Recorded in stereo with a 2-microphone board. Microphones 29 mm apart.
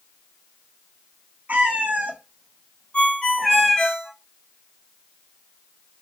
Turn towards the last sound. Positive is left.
turn(degrees=35)  # may be behind; listen again after turning